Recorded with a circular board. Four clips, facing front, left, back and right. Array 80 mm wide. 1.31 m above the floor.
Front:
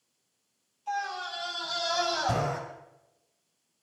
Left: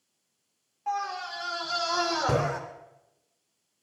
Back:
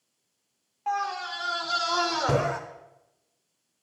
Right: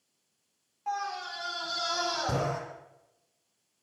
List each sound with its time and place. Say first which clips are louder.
0.9 s a scream: left 3 dB, back 4 dB; straight behind, 4 m; by 2.6 s 155° left, 4.5 m